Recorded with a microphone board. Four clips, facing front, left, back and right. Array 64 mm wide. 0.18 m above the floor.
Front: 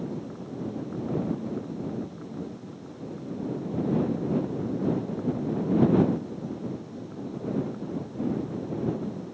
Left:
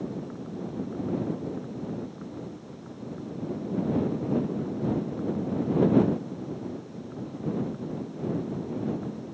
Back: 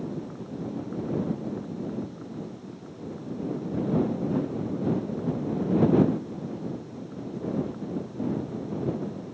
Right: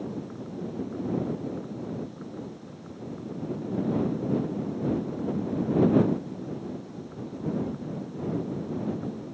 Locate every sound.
Only background noise.